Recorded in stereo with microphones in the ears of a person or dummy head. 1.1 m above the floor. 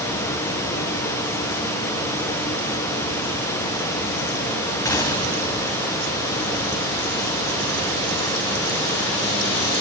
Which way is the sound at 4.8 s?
25° left (ahead or behind).